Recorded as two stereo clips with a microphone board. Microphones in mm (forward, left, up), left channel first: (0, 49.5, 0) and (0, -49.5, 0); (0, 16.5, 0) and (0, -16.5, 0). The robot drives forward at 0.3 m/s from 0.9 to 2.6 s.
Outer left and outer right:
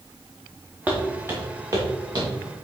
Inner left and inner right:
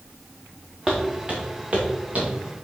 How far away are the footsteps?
About 2.5 m.